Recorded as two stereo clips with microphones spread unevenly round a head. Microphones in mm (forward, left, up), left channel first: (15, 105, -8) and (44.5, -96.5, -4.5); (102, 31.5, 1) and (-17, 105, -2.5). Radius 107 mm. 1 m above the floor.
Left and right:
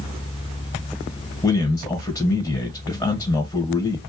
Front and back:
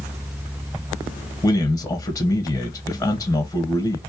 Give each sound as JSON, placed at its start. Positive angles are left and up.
{"t": 1.4, "sound": "a man speaking", "azimuth_deg": 30, "distance_m": 0.7}